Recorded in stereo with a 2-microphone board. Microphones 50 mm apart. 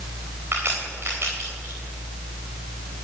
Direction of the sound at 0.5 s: 50° right (ahead or behind).